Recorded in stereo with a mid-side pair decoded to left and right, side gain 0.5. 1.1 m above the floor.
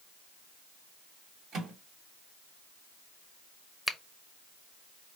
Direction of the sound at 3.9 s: Straight ahead.